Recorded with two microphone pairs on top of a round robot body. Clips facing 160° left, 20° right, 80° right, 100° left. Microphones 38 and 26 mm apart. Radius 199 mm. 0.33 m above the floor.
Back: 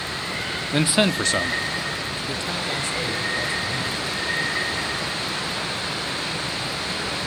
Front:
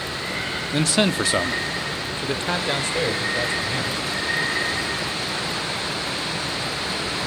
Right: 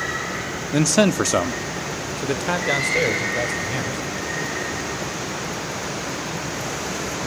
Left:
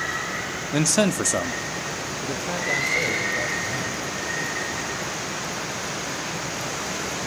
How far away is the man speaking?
About 0.9 m.